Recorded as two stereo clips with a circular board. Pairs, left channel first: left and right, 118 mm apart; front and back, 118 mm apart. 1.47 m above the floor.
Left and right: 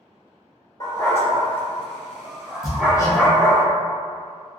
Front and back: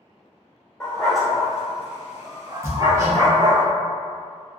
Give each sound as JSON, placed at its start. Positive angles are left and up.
{"t": 0.8, "sound": "a dog barking", "azimuth_deg": 75, "distance_m": 1.3}
{"t": 2.6, "sound": "hammering", "azimuth_deg": 130, "distance_m": 0.6}